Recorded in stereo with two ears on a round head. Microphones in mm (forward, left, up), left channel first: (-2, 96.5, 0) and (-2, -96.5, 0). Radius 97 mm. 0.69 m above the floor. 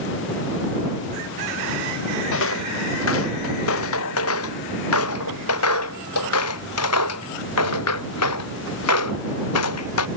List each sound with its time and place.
2.3 s footsteps: 70° left (ahead or behind); by 10.1 s 75° left (ahead or behind)